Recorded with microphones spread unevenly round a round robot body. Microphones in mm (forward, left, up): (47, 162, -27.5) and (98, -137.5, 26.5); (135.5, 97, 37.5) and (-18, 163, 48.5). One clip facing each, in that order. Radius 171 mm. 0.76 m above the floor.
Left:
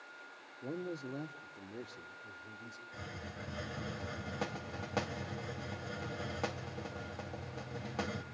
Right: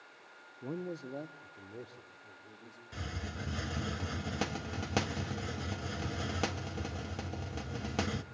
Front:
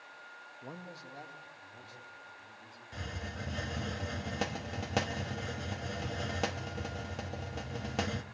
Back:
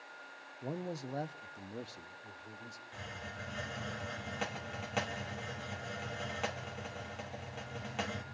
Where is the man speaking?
150° right, 0.6 m; by 2.8 s 160° left, 2.5 m.